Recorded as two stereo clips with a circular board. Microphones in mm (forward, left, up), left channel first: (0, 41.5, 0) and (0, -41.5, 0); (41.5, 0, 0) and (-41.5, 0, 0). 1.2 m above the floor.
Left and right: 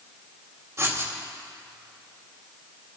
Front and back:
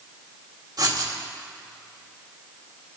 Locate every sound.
0.8 s writing: 145° right, 1.9 m